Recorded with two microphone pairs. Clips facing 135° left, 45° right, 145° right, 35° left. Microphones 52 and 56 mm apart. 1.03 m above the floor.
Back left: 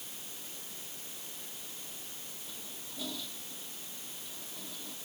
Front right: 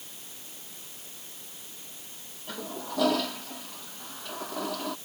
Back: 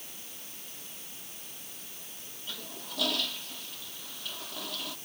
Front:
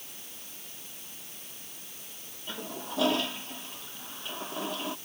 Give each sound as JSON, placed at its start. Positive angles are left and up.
{"t": 2.5, "sound": "a toilet flushing", "azimuth_deg": -30}